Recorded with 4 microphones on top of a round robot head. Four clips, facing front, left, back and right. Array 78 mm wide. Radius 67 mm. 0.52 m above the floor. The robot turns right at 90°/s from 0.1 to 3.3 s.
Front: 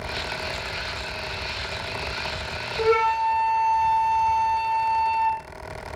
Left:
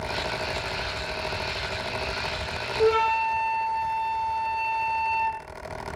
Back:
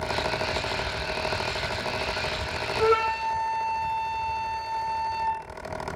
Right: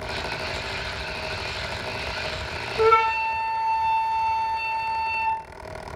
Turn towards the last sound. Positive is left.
turn(degrees=-60)